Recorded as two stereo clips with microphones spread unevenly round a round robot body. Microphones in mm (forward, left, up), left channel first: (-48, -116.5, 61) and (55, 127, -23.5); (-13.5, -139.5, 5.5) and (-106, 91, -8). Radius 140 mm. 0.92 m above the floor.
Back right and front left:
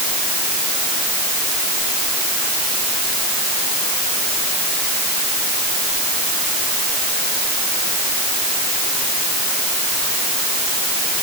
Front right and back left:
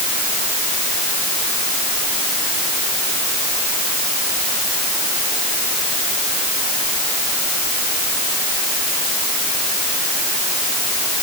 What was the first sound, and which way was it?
Only background noise.